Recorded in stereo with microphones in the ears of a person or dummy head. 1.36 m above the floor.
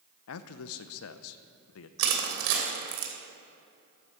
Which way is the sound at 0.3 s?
80° left.